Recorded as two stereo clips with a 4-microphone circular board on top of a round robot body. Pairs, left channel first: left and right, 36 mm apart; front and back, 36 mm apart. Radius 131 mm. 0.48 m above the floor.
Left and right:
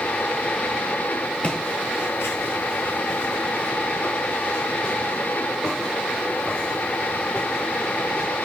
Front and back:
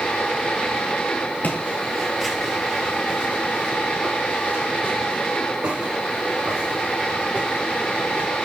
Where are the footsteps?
35° left, 0.8 m; by 8.3 s 150° left, 5.5 m.